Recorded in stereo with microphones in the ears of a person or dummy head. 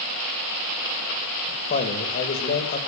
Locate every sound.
1.7 s a man speaking: 50° left (ahead or behind), 1.7 m